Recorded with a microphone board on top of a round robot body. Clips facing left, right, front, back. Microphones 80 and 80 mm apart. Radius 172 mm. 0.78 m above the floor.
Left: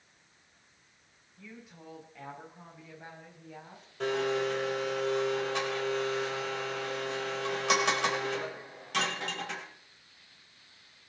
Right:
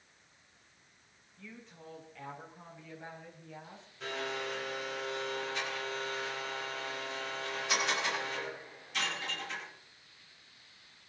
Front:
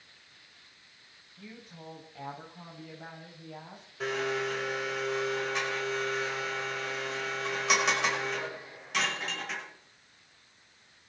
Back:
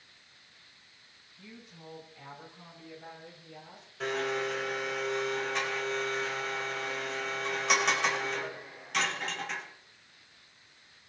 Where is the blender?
90° left, 4.5 m.